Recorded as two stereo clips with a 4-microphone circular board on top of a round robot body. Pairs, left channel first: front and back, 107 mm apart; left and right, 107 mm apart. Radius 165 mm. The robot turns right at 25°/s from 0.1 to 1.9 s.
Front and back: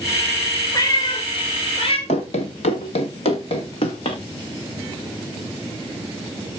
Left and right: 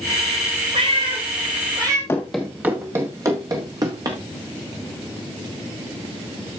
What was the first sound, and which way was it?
A cat meowing, 60° right.